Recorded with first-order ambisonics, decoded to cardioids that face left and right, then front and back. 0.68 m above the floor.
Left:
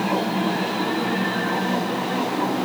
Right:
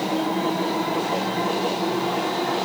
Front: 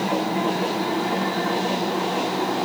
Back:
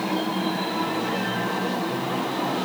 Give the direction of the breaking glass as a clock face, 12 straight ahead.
I don't hear breaking glass.